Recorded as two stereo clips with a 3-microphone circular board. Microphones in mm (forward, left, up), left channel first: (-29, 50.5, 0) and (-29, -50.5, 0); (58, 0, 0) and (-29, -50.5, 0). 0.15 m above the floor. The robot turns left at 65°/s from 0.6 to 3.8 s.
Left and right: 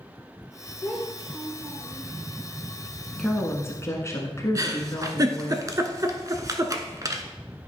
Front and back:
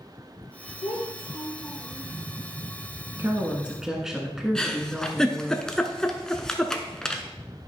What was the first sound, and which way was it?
A child speaking, 20° left.